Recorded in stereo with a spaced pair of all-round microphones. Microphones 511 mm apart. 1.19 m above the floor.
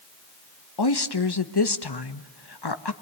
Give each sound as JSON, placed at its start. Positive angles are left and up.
{"t": 0.8, "sound": "a woman speaking", "side_deg": 50, "distance_m": 1.1}